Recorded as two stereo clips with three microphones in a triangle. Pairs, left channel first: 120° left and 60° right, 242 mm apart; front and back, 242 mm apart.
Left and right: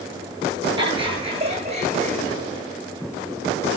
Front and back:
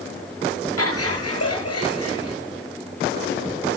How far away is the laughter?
About 7.5 m.